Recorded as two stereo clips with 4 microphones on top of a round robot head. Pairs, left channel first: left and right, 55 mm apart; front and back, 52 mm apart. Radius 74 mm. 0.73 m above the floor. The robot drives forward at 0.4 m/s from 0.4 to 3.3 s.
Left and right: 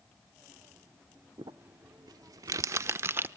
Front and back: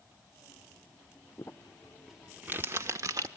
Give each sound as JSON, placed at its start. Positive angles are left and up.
{"t": 1.4, "sound": "crumpling", "azimuth_deg": -55, "distance_m": 0.5}